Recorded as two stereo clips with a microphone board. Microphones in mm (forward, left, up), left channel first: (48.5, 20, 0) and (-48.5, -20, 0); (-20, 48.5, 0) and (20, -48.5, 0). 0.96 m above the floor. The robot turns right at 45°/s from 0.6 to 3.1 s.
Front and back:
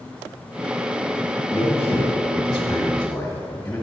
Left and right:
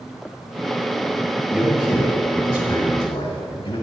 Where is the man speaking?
25° left, 1.6 m; by 3.8 s 95° left, 1.6 m.